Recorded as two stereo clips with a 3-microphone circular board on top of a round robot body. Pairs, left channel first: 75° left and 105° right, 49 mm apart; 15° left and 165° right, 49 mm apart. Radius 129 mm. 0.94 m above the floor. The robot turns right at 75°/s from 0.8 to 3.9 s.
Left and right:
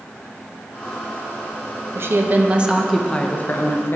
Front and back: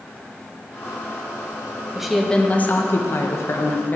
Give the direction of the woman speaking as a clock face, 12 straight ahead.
3 o'clock.